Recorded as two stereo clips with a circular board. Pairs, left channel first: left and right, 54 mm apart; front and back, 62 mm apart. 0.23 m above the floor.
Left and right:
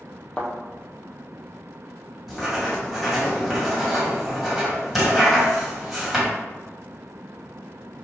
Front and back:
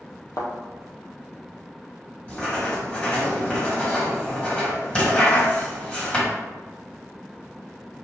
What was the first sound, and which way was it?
A thud, 15° left.